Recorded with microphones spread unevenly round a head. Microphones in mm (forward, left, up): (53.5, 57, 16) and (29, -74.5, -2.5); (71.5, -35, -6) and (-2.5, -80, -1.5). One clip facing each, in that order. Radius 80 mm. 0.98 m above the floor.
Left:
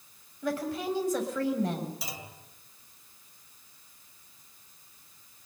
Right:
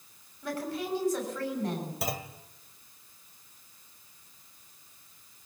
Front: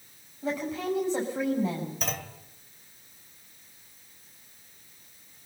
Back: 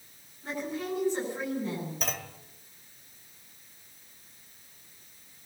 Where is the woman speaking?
85° left, 7.5 m.